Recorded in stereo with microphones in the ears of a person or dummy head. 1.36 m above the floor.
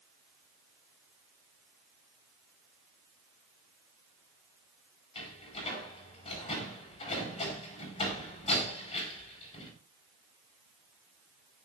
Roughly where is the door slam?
Left.